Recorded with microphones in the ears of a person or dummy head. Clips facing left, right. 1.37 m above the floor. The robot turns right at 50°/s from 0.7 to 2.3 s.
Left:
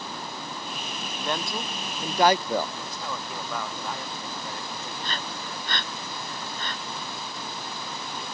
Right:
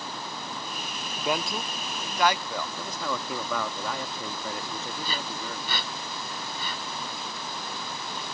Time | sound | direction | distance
1.2 | a man speaking | 15° right | ?
2.8 | a man speaking | 65° right (ahead or behind) | ?
5.0 | breathing | 10° right (ahead or behind) | ?